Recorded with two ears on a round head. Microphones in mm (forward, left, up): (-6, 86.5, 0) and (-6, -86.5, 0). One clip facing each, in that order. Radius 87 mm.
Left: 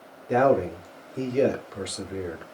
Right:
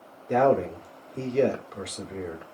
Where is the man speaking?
Centre (ahead or behind), 0.8 m.